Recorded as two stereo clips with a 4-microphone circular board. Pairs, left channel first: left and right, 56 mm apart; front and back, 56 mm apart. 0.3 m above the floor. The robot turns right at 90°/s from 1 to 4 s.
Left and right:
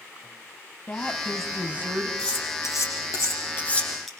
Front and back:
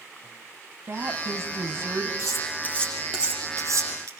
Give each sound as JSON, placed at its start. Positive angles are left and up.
{"t": 0.9, "sound": "a woman speaking", "azimuth_deg": 140, "distance_m": 2.5}
{"t": 2.2, "sound": "cutlery clinking", "azimuth_deg": 15, "distance_m": 7.0}